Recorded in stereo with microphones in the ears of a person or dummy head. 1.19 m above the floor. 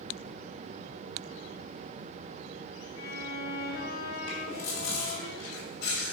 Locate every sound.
3.0 s a violin: 50° left (ahead or behind), 3.5 m
4.3 s chewing: 75° left (ahead or behind), 3 m